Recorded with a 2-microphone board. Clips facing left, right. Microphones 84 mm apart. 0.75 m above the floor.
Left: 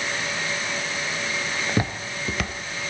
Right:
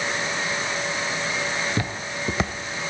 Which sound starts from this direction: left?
Footsteps, at 1.7 s.